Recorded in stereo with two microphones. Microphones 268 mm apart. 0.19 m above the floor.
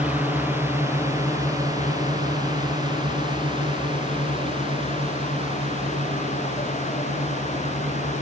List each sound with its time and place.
0.0 s a drone: 5° right (ahead or behind); by 8.2 s 25° right (ahead or behind)